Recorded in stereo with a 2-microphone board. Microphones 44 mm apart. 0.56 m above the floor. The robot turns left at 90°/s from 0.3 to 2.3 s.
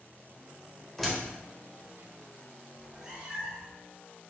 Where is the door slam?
10° left (ahead or behind), 1.2 m; by 1.2 s 10° right (ahead or behind), 1.2 m.